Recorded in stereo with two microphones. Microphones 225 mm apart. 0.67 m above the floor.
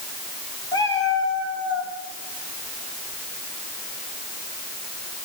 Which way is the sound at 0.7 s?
15° left (ahead or behind).